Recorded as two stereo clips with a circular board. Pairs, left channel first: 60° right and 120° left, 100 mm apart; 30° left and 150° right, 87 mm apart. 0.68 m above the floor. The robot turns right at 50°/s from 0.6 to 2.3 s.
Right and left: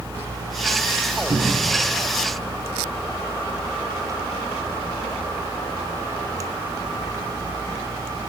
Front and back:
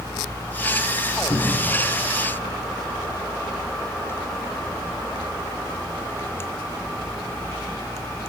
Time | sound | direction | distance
1.3 | a cupboard door | 75° left | 1.6 m